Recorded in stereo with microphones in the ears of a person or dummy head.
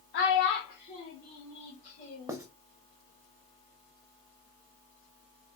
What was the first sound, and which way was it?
A child speaking, 55° left (ahead or behind).